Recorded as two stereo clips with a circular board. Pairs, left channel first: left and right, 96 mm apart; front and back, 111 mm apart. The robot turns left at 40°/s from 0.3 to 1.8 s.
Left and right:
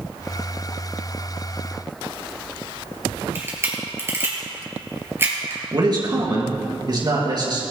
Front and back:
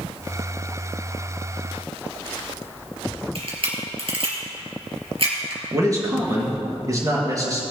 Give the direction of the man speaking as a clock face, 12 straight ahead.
4 o'clock.